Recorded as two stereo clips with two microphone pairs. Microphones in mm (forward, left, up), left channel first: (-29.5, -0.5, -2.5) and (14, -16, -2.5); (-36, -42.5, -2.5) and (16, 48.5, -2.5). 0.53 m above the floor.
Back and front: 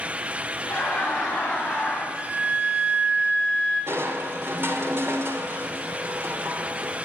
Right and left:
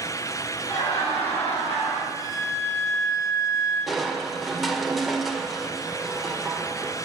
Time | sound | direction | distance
0.7 | laughter | 130° right | 9 m
2.1 | a flute | 10° left | 7.5 m
3.9 | crushing | 30° right | 1.6 m